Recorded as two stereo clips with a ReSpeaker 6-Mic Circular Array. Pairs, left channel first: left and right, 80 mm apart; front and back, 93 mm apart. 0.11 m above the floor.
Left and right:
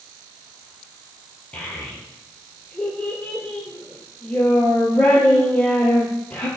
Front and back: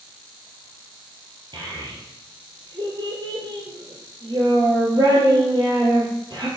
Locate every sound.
1.5 s a child speaking: 160° left, 1.8 m